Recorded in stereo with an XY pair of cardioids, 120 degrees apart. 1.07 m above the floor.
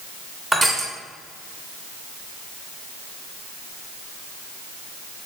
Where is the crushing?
15° right, 0.6 m.